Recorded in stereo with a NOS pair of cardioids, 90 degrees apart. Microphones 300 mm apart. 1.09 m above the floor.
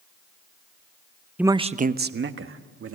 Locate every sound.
1.4 s a man speaking: 5° right, 0.7 m; by 3.0 s 45° right, 1.9 m